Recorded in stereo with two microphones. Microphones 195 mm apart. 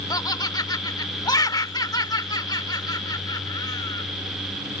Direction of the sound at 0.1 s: 20° left (ahead or behind).